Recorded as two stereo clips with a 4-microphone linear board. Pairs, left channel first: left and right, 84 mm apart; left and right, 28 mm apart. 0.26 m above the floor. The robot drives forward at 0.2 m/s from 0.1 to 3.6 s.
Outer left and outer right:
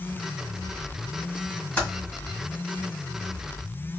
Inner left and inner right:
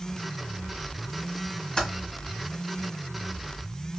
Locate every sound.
1.8 s typing on a keyboard: 25° left (ahead or behind), 1.8 m